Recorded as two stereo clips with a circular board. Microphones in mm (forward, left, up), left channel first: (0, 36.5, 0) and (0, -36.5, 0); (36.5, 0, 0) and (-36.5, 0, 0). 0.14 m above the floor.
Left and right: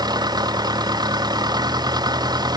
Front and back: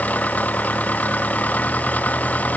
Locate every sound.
0.0 s an engine running: 70° right